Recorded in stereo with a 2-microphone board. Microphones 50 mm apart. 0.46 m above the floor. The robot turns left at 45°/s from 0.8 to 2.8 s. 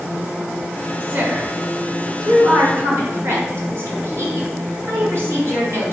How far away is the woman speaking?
About 4 m.